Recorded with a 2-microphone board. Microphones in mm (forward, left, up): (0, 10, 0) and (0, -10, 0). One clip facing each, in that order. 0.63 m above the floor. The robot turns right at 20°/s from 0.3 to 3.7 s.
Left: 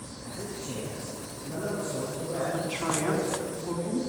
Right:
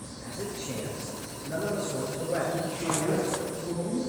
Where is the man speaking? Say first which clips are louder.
Right 2 dB; 135° right, 9 m; by 2.4 s 90° right, 9 m.